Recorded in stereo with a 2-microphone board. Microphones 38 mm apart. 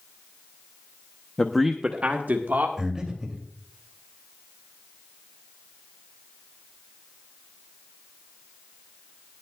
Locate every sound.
1.4 s a man speaking: 15° left (ahead or behind), 0.8 m; by 2.7 s 65° right (ahead or behind), 1.7 m
2.8 s breathing: 20° right (ahead or behind), 2.5 m